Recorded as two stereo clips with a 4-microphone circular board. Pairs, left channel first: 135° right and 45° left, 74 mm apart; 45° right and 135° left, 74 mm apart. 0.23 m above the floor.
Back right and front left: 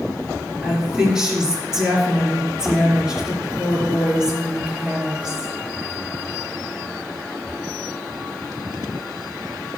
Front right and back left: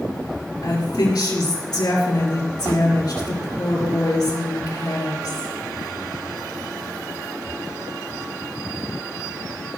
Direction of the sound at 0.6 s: 35° right.